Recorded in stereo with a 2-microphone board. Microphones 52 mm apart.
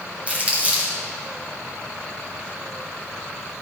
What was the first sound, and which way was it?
Crumpling, 30° right (ahead or behind).